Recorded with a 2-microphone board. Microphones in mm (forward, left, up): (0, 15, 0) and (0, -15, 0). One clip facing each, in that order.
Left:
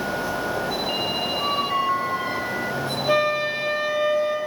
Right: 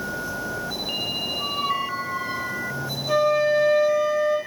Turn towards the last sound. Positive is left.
turn(degrees=40)  # may be behind; listen again after turning